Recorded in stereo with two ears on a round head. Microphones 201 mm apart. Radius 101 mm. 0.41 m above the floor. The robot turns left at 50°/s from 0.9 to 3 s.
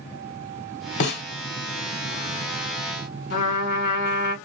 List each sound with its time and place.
1.0 s a snare drum: 55° left (ahead or behind), 0.9 m; by 1.2 s 45° left (ahead or behind), 0.9 m
3.3 s a trumpet: 55° left (ahead or behind), 1.8 m